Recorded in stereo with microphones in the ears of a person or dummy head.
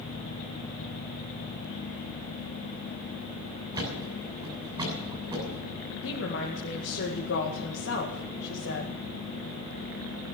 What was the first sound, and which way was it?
A thud, 25° right (ahead or behind).